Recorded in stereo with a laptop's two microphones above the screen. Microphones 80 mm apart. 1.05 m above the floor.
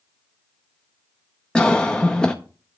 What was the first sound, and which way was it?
A cough, 10° left (ahead or behind).